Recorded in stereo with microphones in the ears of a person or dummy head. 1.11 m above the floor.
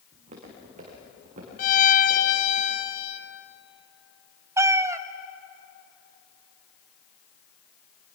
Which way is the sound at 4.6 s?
20° right (ahead or behind).